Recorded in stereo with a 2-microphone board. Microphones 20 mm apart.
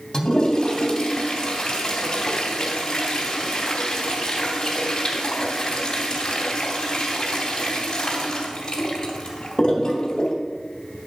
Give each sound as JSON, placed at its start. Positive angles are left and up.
{"t": 0.1, "sound": "a toilet flushing", "side_deg": 30, "distance_m": 2.0}